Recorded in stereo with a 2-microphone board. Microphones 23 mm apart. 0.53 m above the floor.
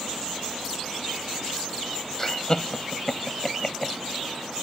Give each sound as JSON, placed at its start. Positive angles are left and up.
{"t": 2.2, "sound": "laughter", "side_deg": 25}